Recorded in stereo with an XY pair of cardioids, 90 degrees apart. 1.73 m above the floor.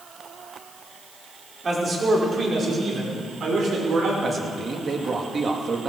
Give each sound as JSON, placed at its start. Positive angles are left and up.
{"t": 1.6, "sound": "a man speaking", "azimuth_deg": -35, "distance_m": 4.5}
{"t": 4.2, "sound": "a man speaking", "azimuth_deg": -45, "distance_m": 2.5}